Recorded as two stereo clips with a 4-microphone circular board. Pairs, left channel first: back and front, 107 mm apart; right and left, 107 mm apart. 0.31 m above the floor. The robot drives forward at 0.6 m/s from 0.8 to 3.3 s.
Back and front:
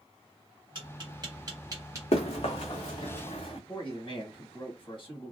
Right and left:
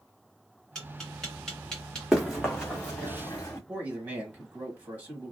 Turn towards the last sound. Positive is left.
turn(degrees=160)